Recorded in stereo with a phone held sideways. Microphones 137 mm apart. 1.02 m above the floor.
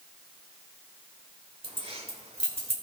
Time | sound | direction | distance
1.6 | keys jangling | 45° right (ahead or behind) | 2.5 m